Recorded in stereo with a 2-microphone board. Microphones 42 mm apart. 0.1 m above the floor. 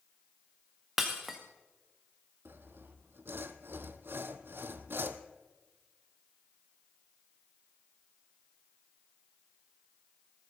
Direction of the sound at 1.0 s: 5° right (ahead or behind).